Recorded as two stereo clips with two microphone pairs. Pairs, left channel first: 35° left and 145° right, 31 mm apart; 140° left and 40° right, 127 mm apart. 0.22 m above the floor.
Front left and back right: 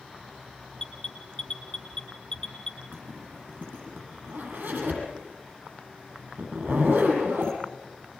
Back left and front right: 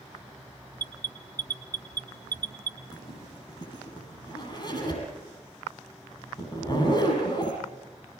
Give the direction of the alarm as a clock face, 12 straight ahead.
1 o'clock.